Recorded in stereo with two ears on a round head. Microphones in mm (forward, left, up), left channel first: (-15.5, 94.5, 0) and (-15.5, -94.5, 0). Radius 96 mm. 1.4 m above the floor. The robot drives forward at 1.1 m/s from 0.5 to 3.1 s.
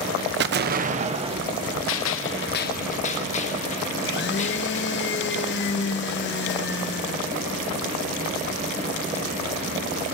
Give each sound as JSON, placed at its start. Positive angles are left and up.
{"t": 0.4, "sound": "an explosion", "side_deg": -55, "distance_m": 0.8}
{"t": 1.9, "sound": "a gunshot", "side_deg": 65, "distance_m": 0.9}
{"t": 4.0, "sound": "a blender", "side_deg": 55, "distance_m": 0.9}